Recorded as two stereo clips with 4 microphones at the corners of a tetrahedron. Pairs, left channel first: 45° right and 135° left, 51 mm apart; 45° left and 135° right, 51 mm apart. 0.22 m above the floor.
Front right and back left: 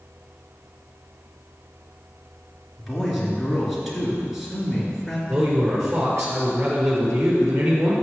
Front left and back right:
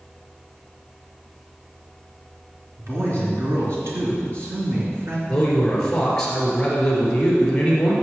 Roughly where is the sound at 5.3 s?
Behind left.